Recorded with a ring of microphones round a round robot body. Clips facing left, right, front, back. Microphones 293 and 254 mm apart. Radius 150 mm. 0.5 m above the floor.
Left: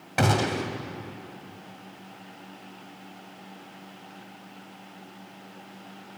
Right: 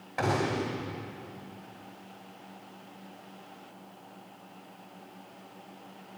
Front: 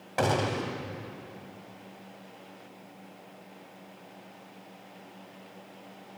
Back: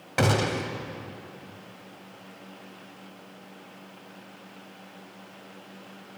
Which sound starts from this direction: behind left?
A gunshot, at 0.2 s.